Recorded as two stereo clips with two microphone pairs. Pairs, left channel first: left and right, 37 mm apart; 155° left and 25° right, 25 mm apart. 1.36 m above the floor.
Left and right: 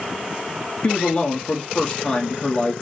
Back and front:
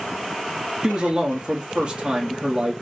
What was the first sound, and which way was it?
A man speaking, 35° left.